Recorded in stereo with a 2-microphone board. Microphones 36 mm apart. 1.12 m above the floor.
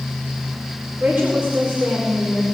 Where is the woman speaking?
25° right (ahead or behind), 3 m; by 2.4 s 30° right (ahead or behind), 4 m.